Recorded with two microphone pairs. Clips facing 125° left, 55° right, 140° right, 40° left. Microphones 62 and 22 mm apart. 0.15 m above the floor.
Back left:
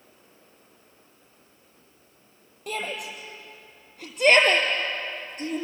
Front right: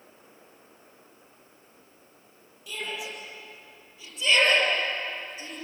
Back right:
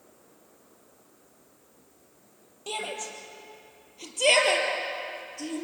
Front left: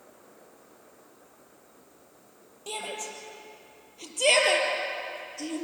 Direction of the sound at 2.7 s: 145° left.